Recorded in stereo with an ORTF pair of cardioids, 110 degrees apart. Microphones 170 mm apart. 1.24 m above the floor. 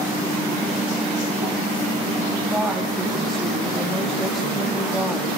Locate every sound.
2.5 s a woman speaking: straight ahead, 2.5 m